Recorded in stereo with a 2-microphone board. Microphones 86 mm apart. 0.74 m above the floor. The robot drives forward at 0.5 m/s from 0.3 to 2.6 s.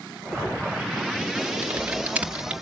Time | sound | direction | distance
1.6 | typing on a keyboard | 20° right (ahead or behind) | 0.8 m